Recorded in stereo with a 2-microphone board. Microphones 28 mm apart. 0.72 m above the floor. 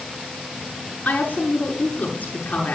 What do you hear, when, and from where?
1.1 s a woman speaking: 55° left (ahead or behind), 7.5 m